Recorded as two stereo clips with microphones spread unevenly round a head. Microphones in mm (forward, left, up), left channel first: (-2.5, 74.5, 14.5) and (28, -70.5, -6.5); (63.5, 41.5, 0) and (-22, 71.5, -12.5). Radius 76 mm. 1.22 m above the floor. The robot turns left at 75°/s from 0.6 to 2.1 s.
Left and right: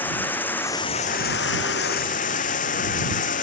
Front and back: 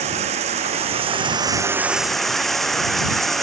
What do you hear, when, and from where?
0.0 s running water: straight behind; by 3.4 s 65° left